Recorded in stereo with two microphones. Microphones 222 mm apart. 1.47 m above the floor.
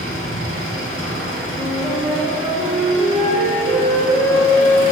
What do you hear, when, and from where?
0.0 s an engine running: 70° right (ahead or behind), 3.5 m
1.5 s a flute: 10° right (ahead or behind), 3 m